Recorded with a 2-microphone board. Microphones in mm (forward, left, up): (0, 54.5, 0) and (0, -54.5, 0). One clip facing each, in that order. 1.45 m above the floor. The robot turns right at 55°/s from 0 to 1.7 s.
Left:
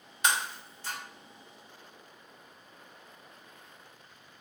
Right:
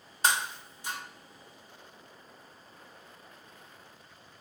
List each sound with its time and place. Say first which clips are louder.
0.2 s breaking glass: right 1 dB; 35° right (ahead or behind), 1.4 m; by 1.0 s 10° right (ahead or behind), 1.4 m